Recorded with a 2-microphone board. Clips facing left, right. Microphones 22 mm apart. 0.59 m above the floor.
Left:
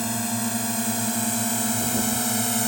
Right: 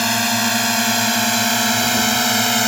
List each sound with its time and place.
0.0 s a drone: 70° right (ahead or behind); by 2.7 s 55° right (ahead or behind)